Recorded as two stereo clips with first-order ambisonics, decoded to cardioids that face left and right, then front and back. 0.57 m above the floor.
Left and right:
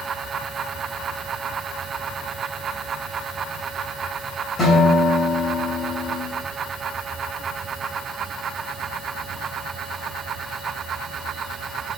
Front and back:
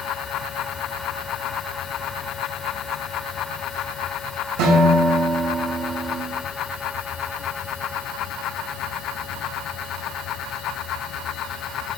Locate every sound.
4.6 s a guitar: 165° left, 2 m